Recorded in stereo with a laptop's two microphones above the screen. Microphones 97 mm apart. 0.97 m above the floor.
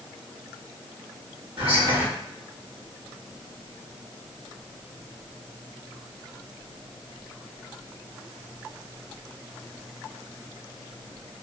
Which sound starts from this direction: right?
Whispering, at 1.6 s.